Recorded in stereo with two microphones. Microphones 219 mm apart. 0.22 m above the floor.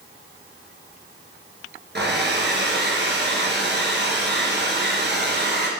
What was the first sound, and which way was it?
A hair dryer, 50° right (ahead or behind).